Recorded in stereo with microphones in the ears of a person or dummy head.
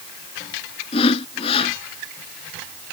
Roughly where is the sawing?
Left.